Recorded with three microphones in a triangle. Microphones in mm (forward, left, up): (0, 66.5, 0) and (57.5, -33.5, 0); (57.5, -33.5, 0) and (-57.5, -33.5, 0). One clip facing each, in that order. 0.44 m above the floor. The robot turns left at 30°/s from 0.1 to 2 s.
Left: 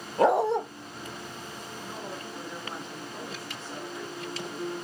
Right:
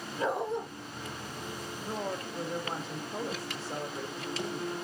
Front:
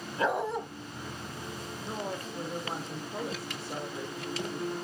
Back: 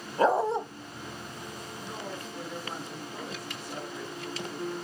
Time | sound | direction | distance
0.2 | a dog barking | 135° left | 0.7 m
1.8 | a woman speaking | 35° right | 1.1 m